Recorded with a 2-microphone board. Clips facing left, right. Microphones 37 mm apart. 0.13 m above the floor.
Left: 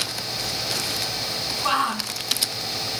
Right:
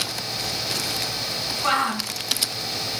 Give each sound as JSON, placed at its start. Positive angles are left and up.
{"t": 1.6, "sound": "a shout", "side_deg": -50, "distance_m": 2.5}